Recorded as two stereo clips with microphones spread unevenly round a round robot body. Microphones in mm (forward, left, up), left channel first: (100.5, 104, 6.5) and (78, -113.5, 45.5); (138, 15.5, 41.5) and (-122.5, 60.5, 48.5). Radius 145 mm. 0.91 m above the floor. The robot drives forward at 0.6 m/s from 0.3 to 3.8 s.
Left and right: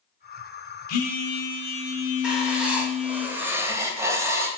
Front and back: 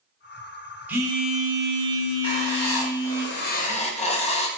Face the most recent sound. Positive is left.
turn(degrees=-10)